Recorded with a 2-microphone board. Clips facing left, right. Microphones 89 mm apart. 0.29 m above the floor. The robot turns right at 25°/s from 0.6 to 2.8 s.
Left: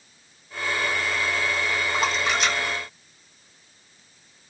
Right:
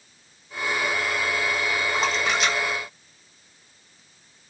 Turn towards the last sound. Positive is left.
turn(degrees=-10)  # may be behind; listen again after turning